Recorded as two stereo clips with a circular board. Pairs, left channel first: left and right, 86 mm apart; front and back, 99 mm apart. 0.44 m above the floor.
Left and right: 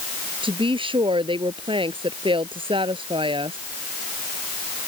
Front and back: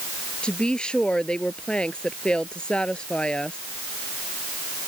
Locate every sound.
0.4 s a woman speaking: 80° right